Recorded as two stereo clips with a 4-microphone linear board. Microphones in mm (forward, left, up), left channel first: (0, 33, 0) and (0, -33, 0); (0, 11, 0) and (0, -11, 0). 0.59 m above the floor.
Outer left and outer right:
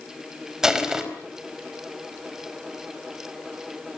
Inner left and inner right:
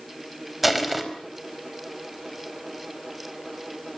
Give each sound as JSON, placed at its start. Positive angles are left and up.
{"t": 0.6, "sound": "crushing", "side_deg": -5, "distance_m": 4.0}